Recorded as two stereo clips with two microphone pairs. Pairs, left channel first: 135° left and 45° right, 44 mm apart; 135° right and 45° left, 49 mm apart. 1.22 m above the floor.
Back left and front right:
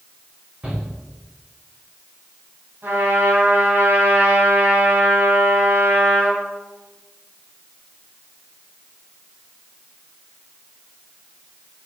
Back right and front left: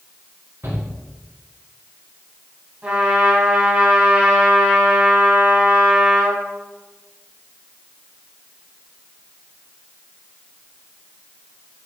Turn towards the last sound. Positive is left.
turn(degrees=-20)